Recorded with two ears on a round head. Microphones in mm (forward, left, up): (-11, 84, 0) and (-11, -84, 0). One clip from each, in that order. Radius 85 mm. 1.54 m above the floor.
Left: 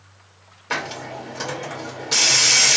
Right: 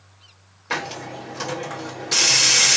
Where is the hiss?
5° right (ahead or behind), 1.3 m.